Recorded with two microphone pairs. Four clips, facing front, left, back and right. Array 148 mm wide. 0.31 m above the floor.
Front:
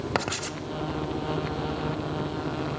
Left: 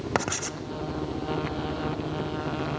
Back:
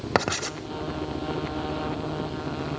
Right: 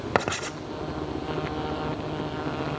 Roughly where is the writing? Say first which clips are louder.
Right 4 dB, back 7 dB; behind right.